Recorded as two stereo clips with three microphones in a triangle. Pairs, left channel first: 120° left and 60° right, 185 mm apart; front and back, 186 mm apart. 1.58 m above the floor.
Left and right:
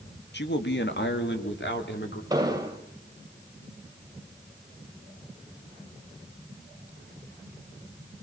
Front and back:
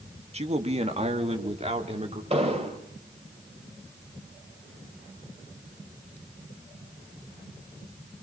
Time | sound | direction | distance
0.3 | a man speaking | 130° left | 1.7 m
2.3 | an explosion | 125° right | 2.5 m